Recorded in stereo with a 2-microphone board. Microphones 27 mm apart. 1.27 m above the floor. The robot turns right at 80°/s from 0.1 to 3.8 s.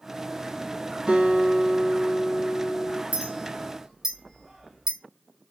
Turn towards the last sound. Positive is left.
turn(degrees=-15)  # may be behind; listen again after turning